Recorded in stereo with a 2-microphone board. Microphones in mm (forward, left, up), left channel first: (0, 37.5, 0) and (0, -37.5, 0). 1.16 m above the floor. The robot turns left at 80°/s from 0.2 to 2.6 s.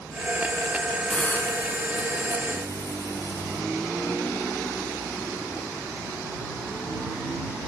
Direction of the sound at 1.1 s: 170° left.